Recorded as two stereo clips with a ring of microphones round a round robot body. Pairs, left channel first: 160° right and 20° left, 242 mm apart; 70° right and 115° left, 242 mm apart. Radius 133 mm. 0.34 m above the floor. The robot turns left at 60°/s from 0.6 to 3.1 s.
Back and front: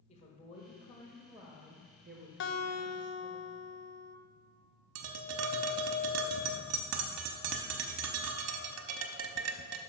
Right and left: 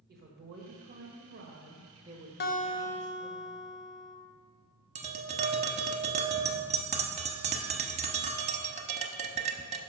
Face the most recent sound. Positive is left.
turn(degrees=50)